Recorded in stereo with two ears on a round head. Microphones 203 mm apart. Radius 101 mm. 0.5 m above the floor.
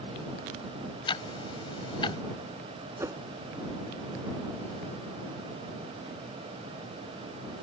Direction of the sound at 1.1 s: 25° left (ahead or behind).